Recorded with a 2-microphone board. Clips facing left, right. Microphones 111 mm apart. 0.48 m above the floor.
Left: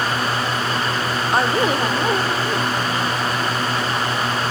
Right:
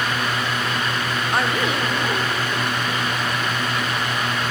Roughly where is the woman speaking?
Left.